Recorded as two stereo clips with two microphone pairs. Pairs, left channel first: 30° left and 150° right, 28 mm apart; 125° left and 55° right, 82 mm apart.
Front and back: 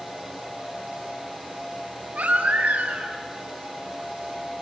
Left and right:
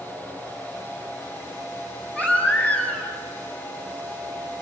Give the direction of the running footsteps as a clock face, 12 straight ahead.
I don't hear running footsteps.